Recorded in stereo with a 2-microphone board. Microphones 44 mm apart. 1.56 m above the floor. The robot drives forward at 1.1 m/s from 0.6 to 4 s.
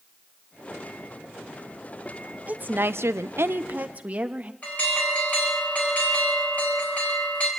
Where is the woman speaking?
35° right (ahead or behind), 1.0 m.